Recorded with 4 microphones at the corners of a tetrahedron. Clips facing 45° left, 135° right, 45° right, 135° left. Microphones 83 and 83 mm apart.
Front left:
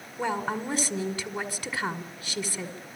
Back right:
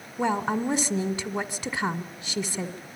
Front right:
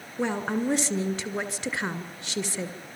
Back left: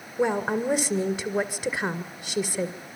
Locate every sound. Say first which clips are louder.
0.2 s a woman speaking: back right 4 dB, back left 3 dB; 160° right, 1.7 m